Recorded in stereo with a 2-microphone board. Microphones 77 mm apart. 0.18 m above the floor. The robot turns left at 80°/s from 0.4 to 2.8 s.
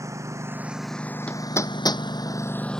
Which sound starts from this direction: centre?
Hammering, at 1.3 s.